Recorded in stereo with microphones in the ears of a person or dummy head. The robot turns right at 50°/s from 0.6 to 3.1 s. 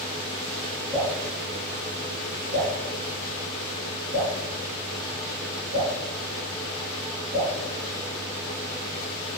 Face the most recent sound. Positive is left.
turn(degrees=-60)  # may be behind; listen again after turning